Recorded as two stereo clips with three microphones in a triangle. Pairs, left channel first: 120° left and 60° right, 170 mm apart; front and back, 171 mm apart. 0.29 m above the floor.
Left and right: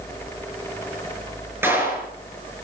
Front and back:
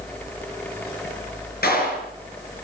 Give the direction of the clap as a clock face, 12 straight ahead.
11 o'clock.